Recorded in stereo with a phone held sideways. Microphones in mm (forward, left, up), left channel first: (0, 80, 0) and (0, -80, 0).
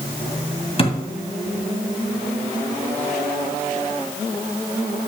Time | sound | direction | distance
0.8 | a thud | 35° left (ahead or behind) | 2 m